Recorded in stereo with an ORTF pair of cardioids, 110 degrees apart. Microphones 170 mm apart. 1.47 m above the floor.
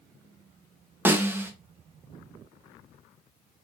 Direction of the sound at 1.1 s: 10° right.